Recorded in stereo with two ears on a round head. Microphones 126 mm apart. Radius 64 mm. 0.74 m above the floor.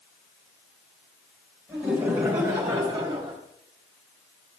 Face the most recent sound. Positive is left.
turn(degrees=-35)  # may be behind; listen again after turning